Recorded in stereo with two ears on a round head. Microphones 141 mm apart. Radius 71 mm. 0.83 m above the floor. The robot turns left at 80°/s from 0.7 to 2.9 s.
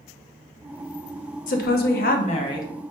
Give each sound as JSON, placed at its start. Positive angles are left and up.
{"t": 1.5, "sound": "a woman speaking", "azimuth_deg": 115, "distance_m": 0.8}